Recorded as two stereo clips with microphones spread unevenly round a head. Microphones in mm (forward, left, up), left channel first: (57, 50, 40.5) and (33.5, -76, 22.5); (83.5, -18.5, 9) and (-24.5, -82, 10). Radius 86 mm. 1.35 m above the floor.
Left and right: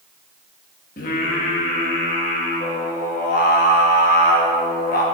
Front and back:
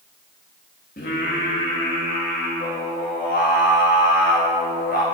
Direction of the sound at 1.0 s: 75° left.